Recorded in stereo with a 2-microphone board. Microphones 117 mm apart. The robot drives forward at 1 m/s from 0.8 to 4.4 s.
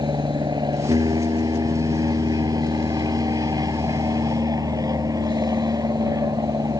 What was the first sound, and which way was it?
An aircraft, 35° right (ahead or behind).